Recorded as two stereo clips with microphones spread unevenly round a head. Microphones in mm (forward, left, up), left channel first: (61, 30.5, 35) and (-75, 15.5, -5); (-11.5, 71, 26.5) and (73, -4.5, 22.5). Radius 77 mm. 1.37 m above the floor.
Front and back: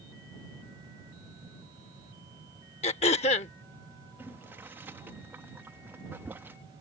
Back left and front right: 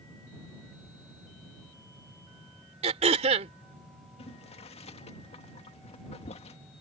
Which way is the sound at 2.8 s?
20° right.